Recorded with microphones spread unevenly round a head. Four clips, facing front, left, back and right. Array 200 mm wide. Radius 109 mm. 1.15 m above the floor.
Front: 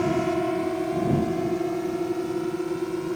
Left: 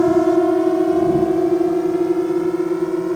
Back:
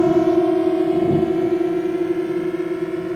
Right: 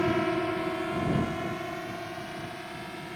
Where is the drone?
135° left; by 3.1 s 105° left.